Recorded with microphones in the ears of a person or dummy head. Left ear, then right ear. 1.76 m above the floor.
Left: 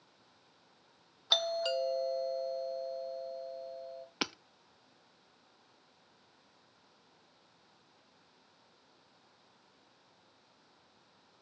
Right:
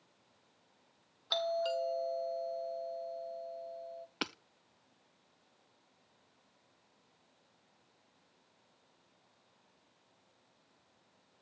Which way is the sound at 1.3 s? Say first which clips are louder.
Left 3 dB; 20° left (ahead or behind).